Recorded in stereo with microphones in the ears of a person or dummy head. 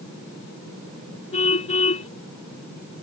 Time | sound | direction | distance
1.3 | a car horn | 40° left (ahead or behind) | ?